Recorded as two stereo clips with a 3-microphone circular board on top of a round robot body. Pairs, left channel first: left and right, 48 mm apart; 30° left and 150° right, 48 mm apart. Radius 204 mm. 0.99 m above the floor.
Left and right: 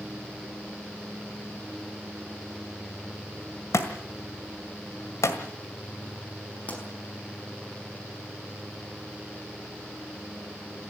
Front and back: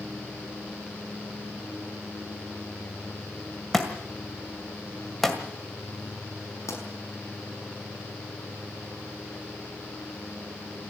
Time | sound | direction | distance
3.7 | a thud | 115° left | 1.7 m
6.7 | a pop | 30° left | 5 m